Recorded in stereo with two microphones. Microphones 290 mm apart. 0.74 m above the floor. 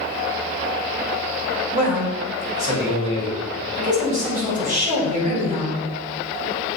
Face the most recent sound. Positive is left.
turn(degrees=-25)  # may be behind; listen again after turning